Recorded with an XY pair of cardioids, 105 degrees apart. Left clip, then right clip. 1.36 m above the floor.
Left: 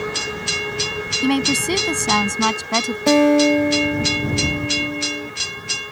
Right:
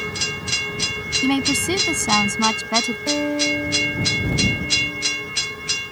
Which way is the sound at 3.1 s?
65° left.